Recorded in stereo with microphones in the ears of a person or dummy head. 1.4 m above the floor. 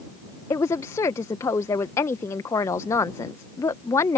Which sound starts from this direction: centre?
A woman speaking, at 0.5 s.